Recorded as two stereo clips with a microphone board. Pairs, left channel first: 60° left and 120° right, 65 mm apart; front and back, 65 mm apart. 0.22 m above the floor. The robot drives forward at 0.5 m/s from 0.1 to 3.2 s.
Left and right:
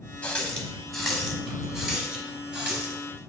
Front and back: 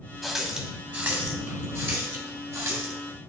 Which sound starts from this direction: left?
A running tap, at 0.2 s.